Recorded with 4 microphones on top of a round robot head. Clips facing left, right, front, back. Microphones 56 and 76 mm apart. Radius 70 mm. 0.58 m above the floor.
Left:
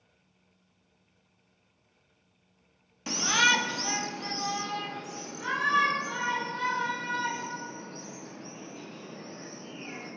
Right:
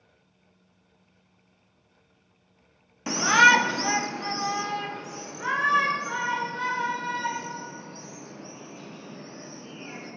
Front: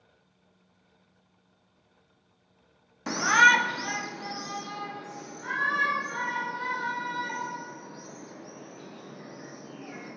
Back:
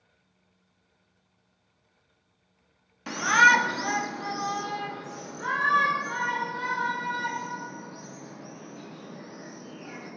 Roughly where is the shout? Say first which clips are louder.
Right 8 dB, back 1 dB; ahead right.